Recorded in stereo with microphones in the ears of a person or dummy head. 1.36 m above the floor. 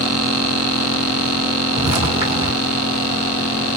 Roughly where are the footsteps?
Right.